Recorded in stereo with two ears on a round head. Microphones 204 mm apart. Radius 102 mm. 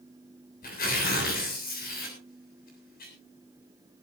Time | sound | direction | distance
0.6 | tearing paper | 40° left (ahead or behind) | 7.5 m